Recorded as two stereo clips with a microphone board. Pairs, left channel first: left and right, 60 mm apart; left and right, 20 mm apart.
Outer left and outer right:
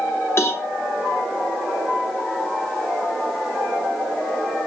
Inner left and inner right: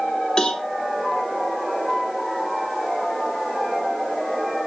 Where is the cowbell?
45° left (ahead or behind), 0.8 m.